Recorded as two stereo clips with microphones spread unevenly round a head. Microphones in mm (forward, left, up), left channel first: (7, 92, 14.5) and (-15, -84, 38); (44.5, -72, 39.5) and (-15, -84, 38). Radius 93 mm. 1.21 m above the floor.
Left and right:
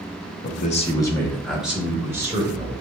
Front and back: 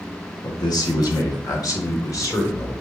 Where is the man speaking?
55° left, 0.8 m; by 2.7 s 25° right, 2 m.